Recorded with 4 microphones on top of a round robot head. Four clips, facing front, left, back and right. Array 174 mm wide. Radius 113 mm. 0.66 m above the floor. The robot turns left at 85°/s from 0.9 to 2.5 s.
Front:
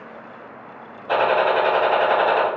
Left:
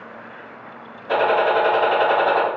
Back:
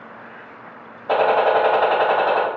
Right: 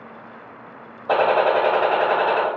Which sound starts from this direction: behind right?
A gunshot, at 1.1 s.